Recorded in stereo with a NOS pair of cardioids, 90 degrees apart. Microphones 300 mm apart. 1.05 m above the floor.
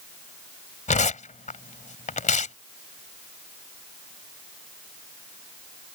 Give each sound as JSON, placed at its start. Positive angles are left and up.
{"t": 0.9, "sound": "tearing paper", "azimuth_deg": 25}